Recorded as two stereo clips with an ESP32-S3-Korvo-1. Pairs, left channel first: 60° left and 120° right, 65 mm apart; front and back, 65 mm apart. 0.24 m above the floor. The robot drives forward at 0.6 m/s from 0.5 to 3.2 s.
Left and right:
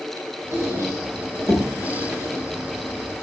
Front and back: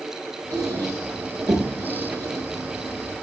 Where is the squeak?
165° right, 8 m; by 3.2 s 170° right, 9.5 m.